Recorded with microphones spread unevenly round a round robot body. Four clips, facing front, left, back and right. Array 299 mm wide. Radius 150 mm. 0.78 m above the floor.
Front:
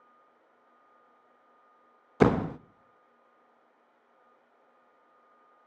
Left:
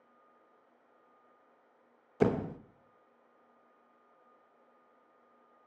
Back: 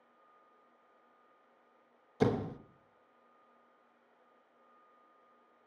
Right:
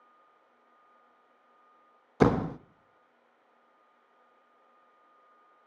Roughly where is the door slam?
Ahead right.